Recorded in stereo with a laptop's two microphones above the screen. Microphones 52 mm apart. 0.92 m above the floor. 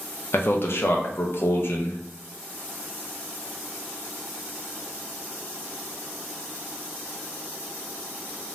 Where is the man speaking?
55° left (ahead or behind), 0.5 m.